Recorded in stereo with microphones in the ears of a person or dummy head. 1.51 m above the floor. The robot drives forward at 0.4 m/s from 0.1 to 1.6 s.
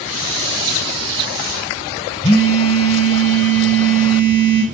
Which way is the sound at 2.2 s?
20° left (ahead or behind).